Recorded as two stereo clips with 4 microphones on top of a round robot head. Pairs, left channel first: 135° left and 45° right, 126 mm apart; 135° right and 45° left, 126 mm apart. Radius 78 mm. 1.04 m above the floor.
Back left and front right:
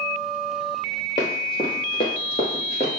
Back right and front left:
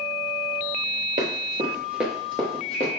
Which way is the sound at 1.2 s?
75° left.